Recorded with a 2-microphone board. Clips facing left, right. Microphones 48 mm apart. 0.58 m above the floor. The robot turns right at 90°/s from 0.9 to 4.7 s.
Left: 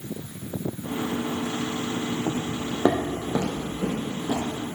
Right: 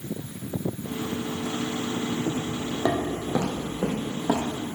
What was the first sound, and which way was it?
Footsteps, 45° left (ahead or behind).